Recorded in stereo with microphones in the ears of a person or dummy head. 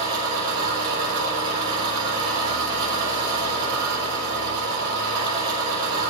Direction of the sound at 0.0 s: 25° right (ahead or behind).